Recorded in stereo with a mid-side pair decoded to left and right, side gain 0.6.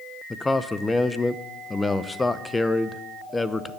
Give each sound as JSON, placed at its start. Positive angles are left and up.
{"t": 0.3, "sound": "a man speaking", "azimuth_deg": 15, "distance_m": 0.8}